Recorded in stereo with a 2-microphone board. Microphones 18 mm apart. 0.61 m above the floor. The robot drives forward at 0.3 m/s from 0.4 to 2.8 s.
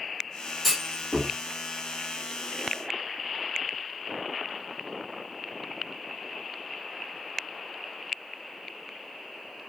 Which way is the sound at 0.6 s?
Centre (ahead or behind).